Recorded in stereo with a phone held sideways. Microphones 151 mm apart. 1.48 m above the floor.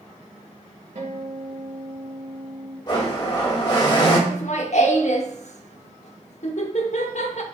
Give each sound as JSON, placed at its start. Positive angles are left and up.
{"t": 0.9, "sound": "a guitar", "side_deg": -65, "distance_m": 1.6}
{"t": 2.9, "sound": "a blender", "side_deg": 30, "distance_m": 1.3}
{"t": 4.3, "sound": "laughter", "side_deg": 55, "distance_m": 0.8}